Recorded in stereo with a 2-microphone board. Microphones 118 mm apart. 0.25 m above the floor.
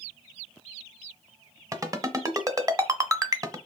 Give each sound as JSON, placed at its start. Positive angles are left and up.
{"t": 1.7, "sound": "a ringtone", "side_deg": -30, "distance_m": 1.3}